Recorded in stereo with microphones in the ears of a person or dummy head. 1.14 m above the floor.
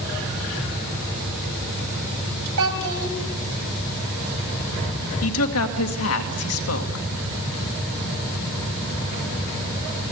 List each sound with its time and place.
2.6 s a child speaking: 75° right (ahead or behind), 4.5 m
5.2 s a woman speaking: 75° left (ahead or behind), 2 m